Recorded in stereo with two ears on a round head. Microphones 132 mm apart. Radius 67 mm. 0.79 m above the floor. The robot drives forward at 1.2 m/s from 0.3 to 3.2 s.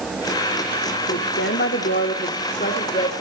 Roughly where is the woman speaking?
Left.